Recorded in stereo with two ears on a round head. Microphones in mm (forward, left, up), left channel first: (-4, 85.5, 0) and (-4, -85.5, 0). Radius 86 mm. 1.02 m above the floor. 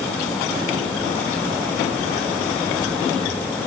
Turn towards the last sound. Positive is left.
No sound to turn to.